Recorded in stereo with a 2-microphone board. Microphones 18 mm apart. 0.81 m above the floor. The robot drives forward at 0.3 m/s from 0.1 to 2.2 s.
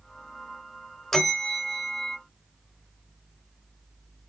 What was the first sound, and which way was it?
A bell, 20° left (ahead or behind).